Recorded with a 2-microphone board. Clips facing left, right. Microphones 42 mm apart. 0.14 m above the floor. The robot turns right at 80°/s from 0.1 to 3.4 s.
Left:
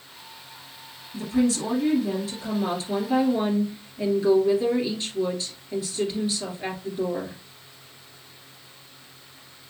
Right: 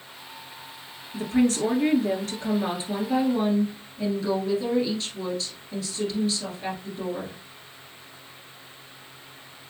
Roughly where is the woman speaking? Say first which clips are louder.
Right 1 dB; behind right.